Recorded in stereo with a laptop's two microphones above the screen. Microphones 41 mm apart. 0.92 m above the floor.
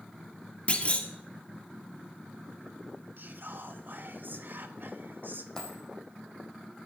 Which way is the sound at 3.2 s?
55° right (ahead or behind).